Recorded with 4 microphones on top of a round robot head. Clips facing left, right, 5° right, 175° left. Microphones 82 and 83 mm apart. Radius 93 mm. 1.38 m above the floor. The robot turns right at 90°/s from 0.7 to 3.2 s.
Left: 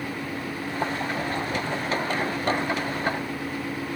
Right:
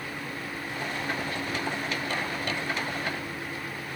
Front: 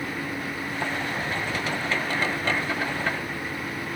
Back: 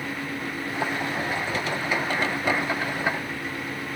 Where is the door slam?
No door slam in this recording.